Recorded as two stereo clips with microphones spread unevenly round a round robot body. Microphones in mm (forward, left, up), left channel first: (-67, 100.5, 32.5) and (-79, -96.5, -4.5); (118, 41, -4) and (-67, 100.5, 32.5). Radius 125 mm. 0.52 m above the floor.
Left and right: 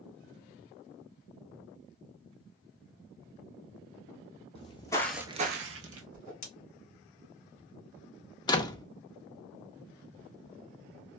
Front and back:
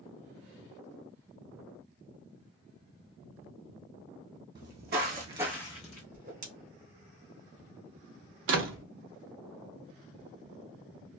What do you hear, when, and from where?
4.5 s footsteps: 140° left, 1.3 m; by 6.0 s 80° right, 1.0 m
6.1 s a whoosh: 120° left, 1.4 m
8.5 s a door slam: 160° left, 0.6 m